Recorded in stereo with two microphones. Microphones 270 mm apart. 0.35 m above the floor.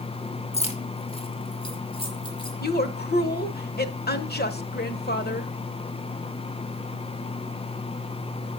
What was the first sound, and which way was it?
Keys jangling, 25° left (ahead or behind).